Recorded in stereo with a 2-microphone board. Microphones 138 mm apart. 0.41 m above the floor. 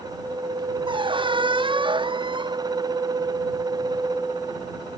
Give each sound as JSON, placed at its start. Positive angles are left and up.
{"t": 0.9, "sound": "a squeak", "side_deg": -40}